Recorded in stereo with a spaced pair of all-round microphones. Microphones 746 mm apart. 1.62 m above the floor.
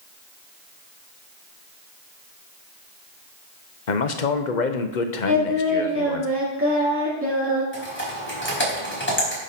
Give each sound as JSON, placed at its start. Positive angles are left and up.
{"t": 3.9, "sound": "a man speaking", "side_deg": 75, "distance_m": 1.1}
{"t": 5.3, "sound": "singing", "side_deg": -15, "distance_m": 2.5}
{"t": 7.7, "sound": "typing on a keyboard", "side_deg": 15, "distance_m": 4.5}